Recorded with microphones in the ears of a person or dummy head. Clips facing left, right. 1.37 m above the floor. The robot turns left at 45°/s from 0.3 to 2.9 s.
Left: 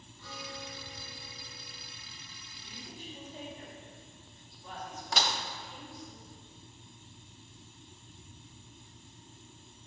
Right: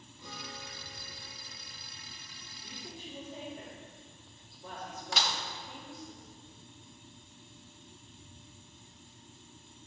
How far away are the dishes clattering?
About 0.7 m.